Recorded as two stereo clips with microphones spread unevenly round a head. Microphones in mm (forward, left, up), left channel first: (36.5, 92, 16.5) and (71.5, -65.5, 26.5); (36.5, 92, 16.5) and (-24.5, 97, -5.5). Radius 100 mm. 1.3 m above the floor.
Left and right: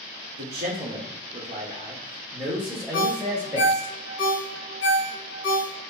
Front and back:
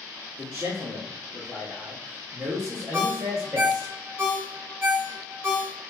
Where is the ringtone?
130° left, 1.7 m.